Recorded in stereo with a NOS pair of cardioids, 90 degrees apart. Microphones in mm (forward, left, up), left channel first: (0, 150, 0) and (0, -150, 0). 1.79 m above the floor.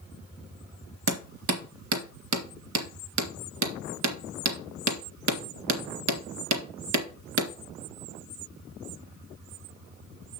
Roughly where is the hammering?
Right.